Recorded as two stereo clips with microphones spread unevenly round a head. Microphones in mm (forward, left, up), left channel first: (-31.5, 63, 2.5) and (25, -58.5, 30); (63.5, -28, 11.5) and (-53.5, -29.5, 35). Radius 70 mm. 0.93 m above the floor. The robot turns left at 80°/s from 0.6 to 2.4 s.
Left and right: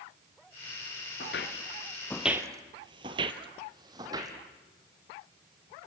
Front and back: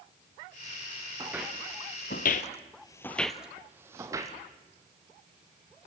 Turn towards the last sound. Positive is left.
turn(degrees=-125)